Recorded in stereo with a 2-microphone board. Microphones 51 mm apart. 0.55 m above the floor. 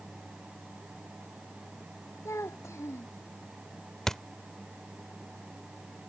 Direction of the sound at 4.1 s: 10° left (ahead or behind).